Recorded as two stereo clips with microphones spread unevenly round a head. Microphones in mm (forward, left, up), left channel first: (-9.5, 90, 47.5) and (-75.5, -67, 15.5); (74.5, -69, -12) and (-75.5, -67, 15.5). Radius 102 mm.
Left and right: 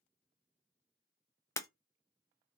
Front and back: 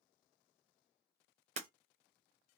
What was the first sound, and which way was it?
Breaking glass, 135° left.